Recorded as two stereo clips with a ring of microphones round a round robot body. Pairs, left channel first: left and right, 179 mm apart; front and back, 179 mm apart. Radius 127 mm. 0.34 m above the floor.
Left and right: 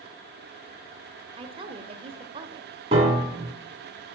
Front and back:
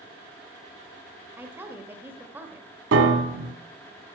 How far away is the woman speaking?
About 1.1 m.